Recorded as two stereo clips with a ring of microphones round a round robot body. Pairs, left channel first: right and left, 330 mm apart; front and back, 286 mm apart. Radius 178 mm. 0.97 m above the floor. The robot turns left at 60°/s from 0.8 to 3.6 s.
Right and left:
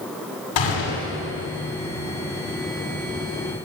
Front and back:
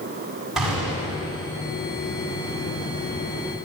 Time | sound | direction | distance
0.6 | a gunshot | 90° right | 8 m